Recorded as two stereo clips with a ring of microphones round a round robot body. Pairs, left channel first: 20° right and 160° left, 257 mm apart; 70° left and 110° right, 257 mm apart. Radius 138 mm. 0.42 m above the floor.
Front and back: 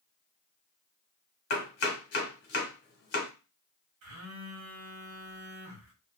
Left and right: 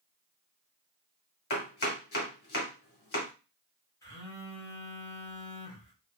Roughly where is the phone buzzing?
Behind left.